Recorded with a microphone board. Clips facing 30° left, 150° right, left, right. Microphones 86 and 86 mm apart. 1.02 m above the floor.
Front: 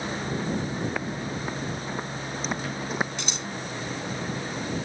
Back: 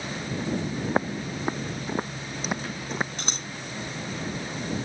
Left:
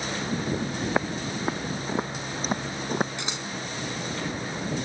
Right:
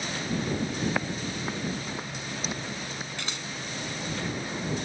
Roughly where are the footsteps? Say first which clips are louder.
Back 3 dB, left 3 dB; behind.